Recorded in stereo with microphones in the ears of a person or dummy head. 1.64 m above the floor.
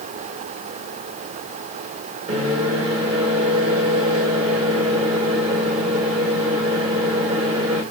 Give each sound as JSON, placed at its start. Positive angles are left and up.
{"t": 2.3, "sound": "a microwave", "side_deg": -30, "distance_m": 5.0}